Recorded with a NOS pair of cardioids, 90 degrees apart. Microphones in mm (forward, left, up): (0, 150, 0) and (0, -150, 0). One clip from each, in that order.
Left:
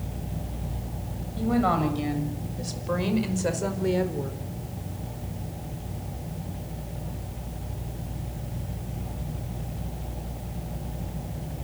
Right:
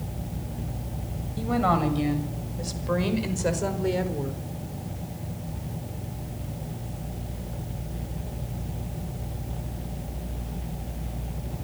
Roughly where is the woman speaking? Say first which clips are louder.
Right 1 dB; ahead.